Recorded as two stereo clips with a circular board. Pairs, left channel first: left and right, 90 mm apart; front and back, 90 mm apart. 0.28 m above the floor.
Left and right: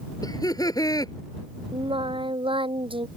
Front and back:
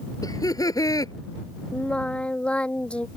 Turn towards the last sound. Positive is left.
turn(degrees=-80)